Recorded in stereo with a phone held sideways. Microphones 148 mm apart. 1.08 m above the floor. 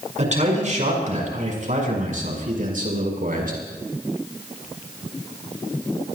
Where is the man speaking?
50° right (ahead or behind), 6 m; by 3.6 s 65° right (ahead or behind), 5 m.